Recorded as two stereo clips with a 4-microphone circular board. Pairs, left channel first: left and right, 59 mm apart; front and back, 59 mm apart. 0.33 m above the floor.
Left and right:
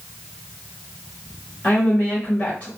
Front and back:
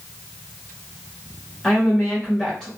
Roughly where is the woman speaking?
Ahead left.